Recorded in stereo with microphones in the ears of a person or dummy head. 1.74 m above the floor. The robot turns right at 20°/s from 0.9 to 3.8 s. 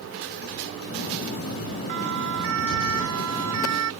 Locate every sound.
1.9 s a siren: 50° right (ahead or behind); by 3.9 s 85° right